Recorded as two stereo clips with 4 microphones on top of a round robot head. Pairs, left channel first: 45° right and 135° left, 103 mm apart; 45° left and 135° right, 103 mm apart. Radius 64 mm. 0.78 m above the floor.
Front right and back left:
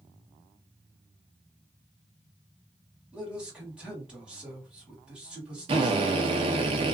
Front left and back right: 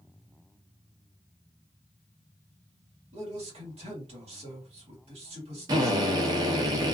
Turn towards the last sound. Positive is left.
turn(degrees=175)